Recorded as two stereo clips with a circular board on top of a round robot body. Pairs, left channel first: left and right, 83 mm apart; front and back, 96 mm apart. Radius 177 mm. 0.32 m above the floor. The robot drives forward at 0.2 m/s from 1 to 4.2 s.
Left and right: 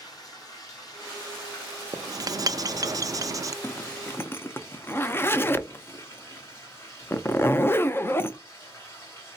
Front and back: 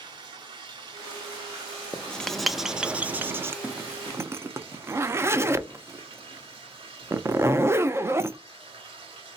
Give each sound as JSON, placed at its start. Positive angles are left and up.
{"t": 0.0, "sound": "running water", "azimuth_deg": 135, "distance_m": 1.4}
{"t": 1.9, "sound": "writing", "azimuth_deg": -70, "distance_m": 0.6}
{"t": 3.6, "sound": "a zipper", "azimuth_deg": 115, "distance_m": 0.6}